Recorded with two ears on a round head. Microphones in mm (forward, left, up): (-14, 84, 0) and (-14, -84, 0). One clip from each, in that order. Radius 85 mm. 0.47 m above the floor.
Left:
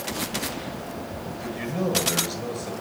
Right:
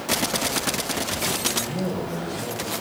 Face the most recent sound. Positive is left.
turn(degrees=50)  # may be behind; listen again after turning